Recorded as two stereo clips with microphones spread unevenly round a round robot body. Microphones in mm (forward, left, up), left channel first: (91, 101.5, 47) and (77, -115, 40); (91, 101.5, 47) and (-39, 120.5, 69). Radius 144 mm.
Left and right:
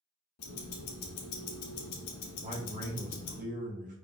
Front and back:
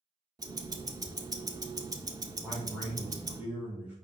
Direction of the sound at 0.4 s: 105° left.